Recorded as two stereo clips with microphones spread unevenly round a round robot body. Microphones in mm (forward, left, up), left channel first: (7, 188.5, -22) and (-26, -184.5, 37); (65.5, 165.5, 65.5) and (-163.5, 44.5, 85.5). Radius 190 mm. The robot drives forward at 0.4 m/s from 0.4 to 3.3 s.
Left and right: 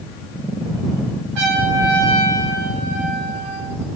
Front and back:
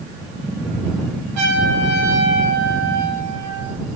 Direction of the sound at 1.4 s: 120° right.